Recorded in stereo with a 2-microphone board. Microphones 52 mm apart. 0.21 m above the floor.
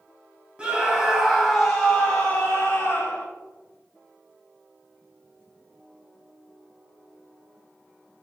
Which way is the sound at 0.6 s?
20° right (ahead or behind).